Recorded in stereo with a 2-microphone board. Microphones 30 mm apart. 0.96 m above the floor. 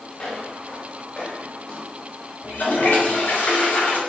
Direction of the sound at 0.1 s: 55° left (ahead or behind).